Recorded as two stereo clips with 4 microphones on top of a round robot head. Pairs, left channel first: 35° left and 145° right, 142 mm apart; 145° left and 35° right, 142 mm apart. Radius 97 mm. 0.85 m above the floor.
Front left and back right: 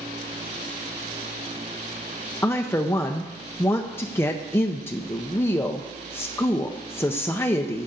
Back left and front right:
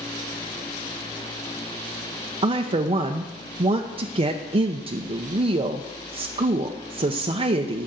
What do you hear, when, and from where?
2.4 s a woman speaking: 25° right, 0.6 m